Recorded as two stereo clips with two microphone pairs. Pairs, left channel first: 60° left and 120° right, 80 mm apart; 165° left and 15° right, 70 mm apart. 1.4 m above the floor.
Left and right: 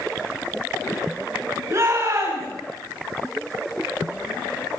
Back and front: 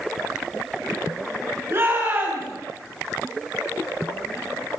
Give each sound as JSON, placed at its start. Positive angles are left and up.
{"t": 1.7, "sound": "a shout", "azimuth_deg": -70, "distance_m": 9.0}